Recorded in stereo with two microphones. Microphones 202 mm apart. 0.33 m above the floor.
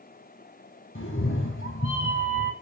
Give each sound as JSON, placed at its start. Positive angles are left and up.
{"t": 0.9, "sound": "a cat meowing", "side_deg": 80, "distance_m": 1.3}